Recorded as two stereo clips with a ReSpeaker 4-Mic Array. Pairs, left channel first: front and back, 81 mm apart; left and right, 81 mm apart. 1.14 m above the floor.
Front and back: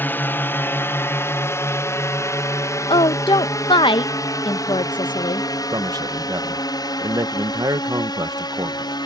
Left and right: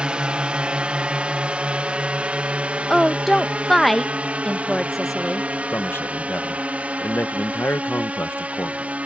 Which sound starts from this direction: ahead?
A woman speaking, at 2.9 s.